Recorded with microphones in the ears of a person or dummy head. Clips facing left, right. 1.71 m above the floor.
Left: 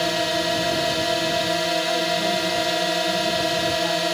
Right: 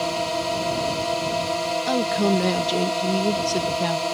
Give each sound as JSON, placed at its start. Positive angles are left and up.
{"t": 0.0, "sound": "a drone", "side_deg": 15}
{"t": 1.9, "sound": "a woman speaking", "side_deg": -75}